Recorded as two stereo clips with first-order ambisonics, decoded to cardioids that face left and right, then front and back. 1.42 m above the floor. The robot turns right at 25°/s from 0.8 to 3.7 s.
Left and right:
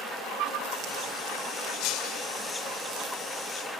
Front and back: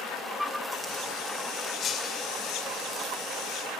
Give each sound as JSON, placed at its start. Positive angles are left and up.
{"t": 1.8, "sound": "breaking glass", "azimuth_deg": 60, "distance_m": 2.0}